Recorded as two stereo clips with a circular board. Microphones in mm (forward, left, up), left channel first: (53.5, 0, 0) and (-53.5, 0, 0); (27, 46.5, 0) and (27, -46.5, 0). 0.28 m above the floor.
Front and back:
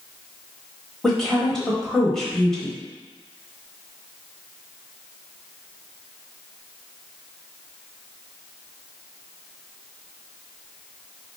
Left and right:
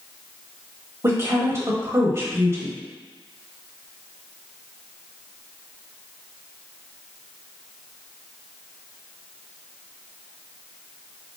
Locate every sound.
1.0 s a woman speaking: 80° right, 1.0 m